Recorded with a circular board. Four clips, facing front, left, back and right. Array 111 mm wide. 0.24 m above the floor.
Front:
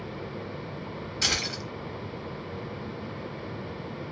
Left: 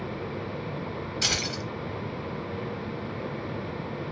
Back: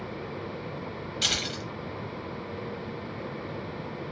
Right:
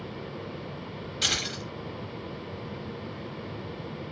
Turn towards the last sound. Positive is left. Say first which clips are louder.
# even, front 2 dB
turn(degrees=40)